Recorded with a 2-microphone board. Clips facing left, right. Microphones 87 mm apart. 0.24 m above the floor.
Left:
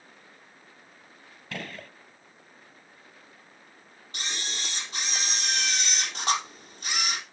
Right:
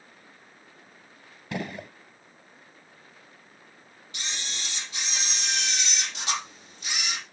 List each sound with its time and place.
1.5 s a gunshot: 20° right (ahead or behind), 0.5 m
4.1 s a camera shutter: 50° left (ahead or behind), 4 m